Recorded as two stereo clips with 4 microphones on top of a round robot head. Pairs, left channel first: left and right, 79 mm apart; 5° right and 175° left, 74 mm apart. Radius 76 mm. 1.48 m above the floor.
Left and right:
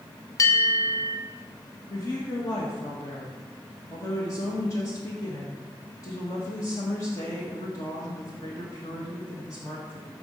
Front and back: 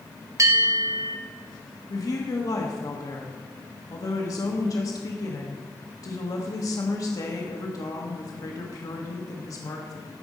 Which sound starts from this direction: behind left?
A bell, at 0.4 s.